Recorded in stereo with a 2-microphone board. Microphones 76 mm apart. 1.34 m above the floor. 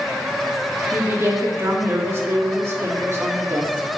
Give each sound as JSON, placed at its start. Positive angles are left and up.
{"t": 0.9, "sound": "a woman speaking", "side_deg": -35, "distance_m": 2.5}